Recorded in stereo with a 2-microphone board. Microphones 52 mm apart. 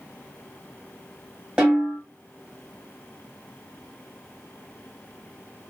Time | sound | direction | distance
1.6 | a snare drum | 15° right (ahead or behind) | 1.4 m